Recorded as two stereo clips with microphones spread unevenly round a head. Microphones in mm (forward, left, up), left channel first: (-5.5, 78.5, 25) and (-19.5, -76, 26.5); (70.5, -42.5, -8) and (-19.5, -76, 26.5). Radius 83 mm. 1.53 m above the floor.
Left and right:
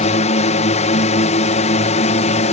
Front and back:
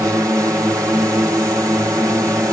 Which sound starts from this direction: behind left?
A drone, at 0.0 s.